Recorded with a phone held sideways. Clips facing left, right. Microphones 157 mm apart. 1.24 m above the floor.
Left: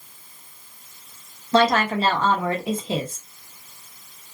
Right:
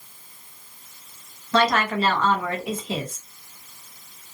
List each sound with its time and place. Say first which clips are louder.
1.5 s a woman speaking: left 2 dB; 30° left (ahead or behind), 0.9 m